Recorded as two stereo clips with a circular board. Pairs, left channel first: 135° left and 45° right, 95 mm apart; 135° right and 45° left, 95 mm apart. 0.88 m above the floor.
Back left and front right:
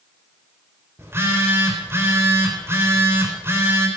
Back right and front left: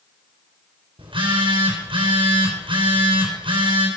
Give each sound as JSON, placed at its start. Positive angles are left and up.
{"t": 1.0, "sound": "a phone buzzing", "azimuth_deg": 20, "distance_m": 4.0}